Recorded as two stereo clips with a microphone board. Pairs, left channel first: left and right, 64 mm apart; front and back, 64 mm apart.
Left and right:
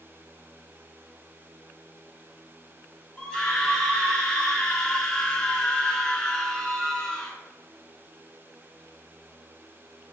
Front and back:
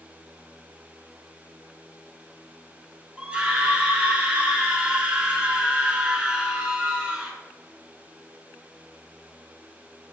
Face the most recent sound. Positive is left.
turn(degrees=140)